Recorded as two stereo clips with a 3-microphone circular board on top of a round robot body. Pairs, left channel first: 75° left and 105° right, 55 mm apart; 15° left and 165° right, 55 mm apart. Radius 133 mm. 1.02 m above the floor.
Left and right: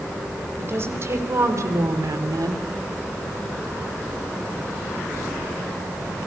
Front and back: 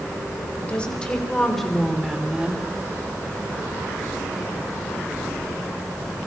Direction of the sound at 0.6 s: 55° right.